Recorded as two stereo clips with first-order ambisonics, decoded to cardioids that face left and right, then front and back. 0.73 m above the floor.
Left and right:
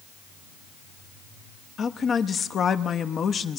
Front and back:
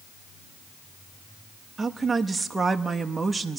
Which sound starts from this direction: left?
A woman speaking, at 1.8 s.